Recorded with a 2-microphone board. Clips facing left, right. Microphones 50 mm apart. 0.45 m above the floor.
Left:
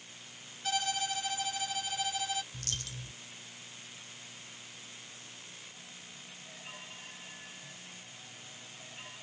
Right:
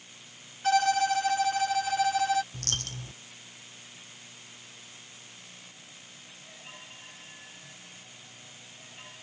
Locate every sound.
0.6 s a violin: 60° right (ahead or behind)
2.5 s a dropped coin: 55° right (ahead or behind)